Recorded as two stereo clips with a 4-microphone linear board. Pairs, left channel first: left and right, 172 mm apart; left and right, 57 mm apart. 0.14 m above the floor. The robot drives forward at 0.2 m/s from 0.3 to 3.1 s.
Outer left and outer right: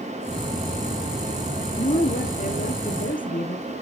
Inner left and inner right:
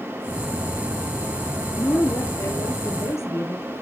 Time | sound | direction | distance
1.8 | a woman speaking | 50° left (ahead or behind) | 3 m